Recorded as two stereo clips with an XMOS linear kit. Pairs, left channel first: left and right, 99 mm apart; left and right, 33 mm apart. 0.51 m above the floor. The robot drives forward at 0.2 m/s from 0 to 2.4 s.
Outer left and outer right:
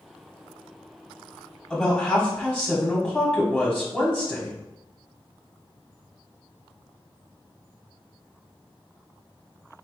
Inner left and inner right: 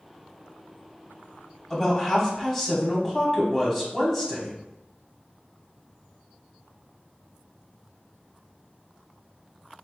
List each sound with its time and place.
1.7 s a woman speaking: 15° left (ahead or behind), 1.3 m